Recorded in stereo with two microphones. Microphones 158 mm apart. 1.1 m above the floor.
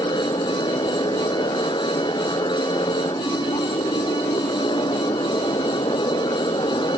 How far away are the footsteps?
No footsteps in this recording.